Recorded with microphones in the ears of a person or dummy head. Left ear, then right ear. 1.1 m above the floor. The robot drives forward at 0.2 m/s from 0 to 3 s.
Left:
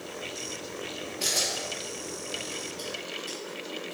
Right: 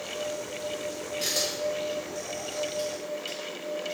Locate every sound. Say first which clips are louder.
1.2 s a camera shutter: even; centre (ahead or behind), 0.6 m